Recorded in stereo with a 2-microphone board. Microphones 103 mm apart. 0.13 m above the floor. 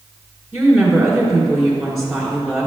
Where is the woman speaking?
5° right (ahead or behind), 1.8 m.